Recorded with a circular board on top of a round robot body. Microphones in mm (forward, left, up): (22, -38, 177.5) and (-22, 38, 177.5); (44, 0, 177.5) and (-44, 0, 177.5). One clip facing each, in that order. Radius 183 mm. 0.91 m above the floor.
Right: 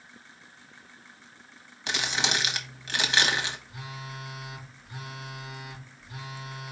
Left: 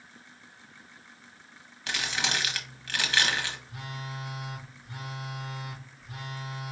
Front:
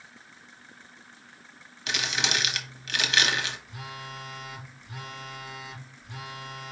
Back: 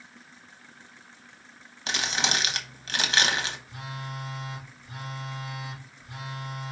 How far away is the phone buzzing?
About 3.5 m.